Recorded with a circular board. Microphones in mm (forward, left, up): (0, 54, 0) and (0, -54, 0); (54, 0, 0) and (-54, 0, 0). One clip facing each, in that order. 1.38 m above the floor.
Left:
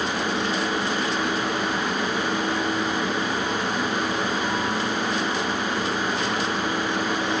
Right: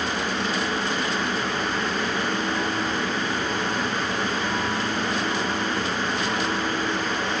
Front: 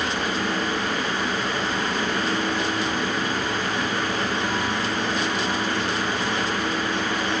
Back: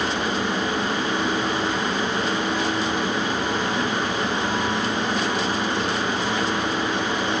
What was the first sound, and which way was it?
Only background noise.